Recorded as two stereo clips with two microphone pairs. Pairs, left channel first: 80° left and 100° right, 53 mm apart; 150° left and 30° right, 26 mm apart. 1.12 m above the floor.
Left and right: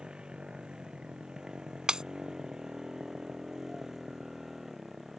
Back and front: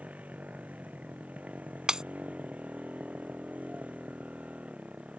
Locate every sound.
0.0 s a motorcycle: 25° right; by 5.2 s 10° right
1.9 s breaking glass: 35° right